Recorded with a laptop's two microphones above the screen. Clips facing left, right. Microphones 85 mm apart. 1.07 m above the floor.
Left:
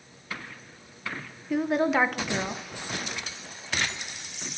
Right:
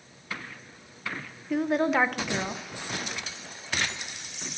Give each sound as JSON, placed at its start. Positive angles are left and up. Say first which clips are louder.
{"t": 1.5, "sound": "a woman speaking", "louder": "even", "side_deg": 0, "distance_m": 0.6}